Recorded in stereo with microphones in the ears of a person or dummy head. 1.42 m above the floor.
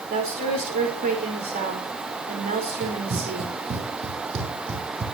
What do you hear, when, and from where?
0.1 s a woman speaking: 45° right (ahead or behind), 4.5 m
2.8 s running footsteps: 50° right (ahead or behind), 3.5 m; by 5.0 s 30° right (ahead or behind), 5 m